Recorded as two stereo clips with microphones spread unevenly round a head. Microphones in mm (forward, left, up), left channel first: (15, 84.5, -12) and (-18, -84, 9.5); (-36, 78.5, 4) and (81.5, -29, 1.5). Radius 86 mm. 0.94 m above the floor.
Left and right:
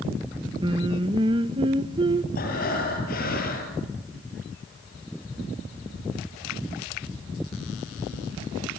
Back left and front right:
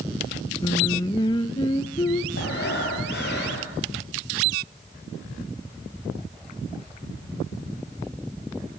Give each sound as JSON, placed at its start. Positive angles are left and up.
{"t": 0.6, "sound": "singing", "azimuth_deg": -165, "distance_m": 0.8}
{"t": 2.4, "sound": "breathing", "azimuth_deg": 120, "distance_m": 5.5}